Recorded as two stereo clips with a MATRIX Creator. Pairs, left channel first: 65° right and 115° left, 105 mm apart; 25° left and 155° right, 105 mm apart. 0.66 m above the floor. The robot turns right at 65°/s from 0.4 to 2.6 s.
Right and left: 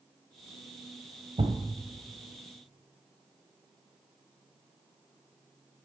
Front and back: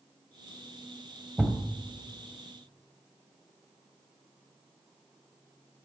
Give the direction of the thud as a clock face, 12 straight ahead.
8 o'clock.